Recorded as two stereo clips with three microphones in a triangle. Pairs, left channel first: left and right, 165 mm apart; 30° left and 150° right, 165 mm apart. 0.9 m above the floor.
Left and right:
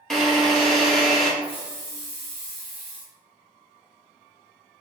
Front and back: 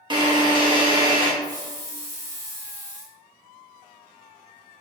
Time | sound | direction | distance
0.1 | a drill | 175° left | 0.8 m
1.4 | a hiss | 145° left | 1.0 m